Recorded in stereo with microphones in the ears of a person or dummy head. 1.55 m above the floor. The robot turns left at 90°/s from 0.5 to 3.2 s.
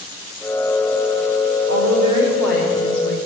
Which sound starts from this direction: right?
A woman speaking, at 1.7 s.